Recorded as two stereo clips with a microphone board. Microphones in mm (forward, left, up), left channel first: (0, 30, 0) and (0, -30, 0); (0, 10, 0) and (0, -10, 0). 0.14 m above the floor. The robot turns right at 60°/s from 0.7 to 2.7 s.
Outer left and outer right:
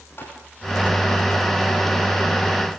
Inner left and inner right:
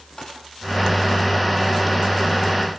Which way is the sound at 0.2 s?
40° left (ahead or behind).